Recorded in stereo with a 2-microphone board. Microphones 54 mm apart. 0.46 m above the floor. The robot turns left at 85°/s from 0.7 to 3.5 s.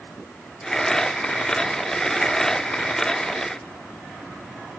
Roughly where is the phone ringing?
No phone ringing in this recording.